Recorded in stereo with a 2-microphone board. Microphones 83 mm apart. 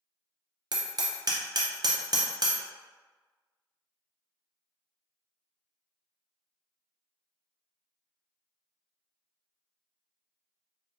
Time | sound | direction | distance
0.7 | hammering | 55° right (ahead or behind) | 0.6 m